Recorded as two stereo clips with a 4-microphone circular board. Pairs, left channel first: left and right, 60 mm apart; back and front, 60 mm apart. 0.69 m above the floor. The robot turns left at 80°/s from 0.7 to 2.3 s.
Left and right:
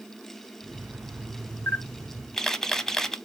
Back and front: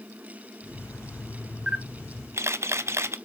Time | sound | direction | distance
1.7 | a camera shutter | 60° left | 0.7 m